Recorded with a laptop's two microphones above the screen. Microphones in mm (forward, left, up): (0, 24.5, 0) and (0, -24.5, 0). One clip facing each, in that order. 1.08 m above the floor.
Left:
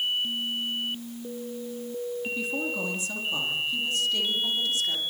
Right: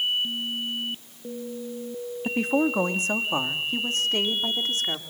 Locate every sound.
2.2 s a woman speaking: 55° right (ahead or behind), 1.7 m; by 5.0 s 45° right (ahead or behind), 3 m